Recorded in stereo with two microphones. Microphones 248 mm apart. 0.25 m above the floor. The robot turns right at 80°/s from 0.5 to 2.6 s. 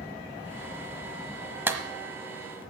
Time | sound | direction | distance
1.7 | a clap | 10° right (ahead or behind) | 1.1 m